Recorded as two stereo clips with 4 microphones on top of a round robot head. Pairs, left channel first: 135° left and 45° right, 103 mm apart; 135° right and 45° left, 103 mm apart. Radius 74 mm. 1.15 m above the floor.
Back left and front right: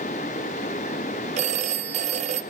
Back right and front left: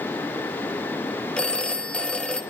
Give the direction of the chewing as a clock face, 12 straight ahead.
I don't hear chewing.